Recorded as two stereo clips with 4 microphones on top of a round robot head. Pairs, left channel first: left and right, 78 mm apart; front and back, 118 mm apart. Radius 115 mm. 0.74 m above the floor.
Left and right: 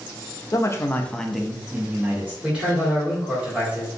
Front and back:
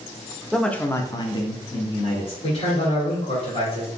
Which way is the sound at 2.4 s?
20° right.